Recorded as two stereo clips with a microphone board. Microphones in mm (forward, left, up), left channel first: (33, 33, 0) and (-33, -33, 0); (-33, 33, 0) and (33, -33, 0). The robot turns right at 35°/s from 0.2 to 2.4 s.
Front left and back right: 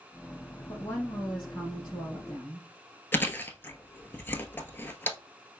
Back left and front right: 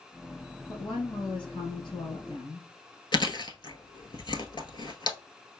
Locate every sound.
0.7 s a woman speaking: 105° left, 2.5 m; by 2.7 s 165° left, 2.5 m
3.1 s chewing: 110° left, 0.8 m